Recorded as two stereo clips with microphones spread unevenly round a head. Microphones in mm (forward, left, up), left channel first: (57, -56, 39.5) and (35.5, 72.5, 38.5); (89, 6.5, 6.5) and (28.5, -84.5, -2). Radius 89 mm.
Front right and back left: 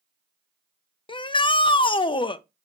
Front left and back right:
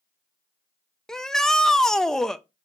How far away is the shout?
About 0.8 m.